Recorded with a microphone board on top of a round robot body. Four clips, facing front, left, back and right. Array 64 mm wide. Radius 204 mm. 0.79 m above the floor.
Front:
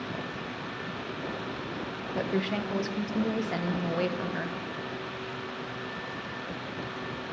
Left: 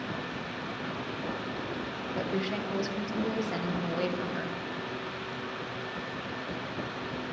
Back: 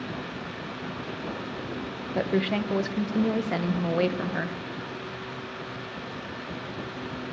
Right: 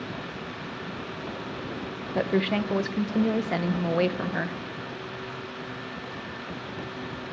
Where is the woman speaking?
115° right, 1.0 m.